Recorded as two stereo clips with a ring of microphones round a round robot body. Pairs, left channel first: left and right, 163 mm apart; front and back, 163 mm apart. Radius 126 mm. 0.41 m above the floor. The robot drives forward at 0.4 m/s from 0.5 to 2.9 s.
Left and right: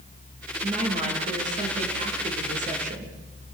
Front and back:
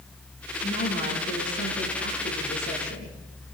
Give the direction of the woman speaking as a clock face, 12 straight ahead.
1 o'clock.